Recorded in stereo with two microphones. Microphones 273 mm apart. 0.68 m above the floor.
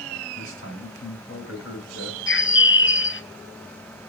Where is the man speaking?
50° left (ahead or behind), 3 m.